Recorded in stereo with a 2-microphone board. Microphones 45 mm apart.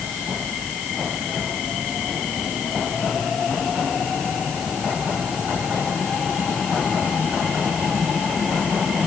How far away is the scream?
I don't hear a scream.